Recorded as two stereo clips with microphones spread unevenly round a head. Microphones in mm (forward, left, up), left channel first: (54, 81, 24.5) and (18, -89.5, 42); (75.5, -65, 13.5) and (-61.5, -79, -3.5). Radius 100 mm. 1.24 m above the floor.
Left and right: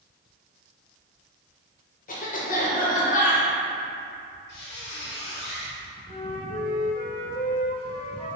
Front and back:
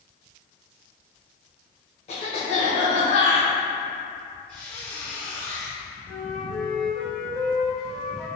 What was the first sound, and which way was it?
A cough, 55° left.